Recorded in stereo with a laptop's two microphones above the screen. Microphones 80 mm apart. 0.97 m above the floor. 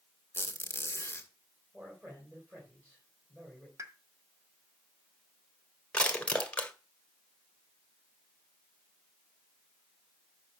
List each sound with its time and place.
0.3 s a squeak: 30° left (ahead or behind), 2 m
1.7 s a man speaking: 30° right (ahead or behind), 4.5 m
3.8 s a pop: 40° right (ahead or behind), 1.4 m
5.9 s crushing: 15° left (ahead or behind), 1.7 m